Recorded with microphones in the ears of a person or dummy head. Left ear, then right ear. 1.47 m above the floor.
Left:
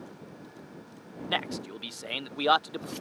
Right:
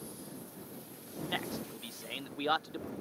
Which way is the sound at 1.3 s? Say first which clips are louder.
Left 7 dB; 25° left (ahead or behind).